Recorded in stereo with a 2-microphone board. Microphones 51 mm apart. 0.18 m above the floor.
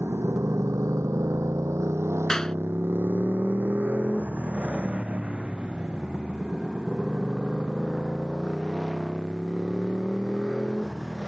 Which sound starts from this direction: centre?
A clap, at 2.3 s.